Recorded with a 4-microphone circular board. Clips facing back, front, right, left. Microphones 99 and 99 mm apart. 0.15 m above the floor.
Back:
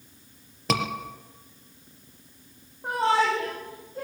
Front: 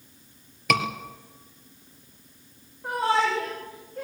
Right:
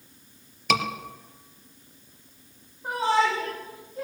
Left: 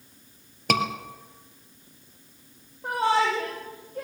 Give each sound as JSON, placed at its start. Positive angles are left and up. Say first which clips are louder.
{"t": 0.7, "sound": "a scream", "louder": "front 2 dB, left 1 dB", "azimuth_deg": 125, "distance_m": 3.5}
{"t": 2.8, "sound": "a shout", "louder": "back 1 dB, even", "azimuth_deg": 115, "distance_m": 9.0}